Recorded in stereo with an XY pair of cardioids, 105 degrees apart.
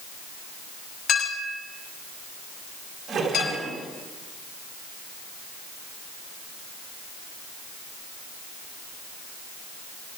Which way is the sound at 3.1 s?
60° right.